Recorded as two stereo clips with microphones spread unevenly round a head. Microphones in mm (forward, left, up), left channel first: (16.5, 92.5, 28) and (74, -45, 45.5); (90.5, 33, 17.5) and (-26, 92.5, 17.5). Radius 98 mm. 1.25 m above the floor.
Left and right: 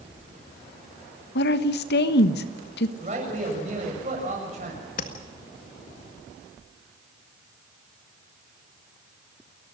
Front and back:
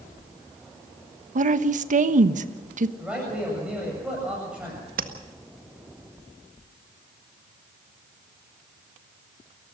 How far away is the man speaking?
About 8 m.